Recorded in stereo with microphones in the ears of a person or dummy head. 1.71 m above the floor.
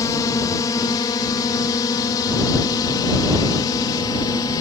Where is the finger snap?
No finger snap in this recording.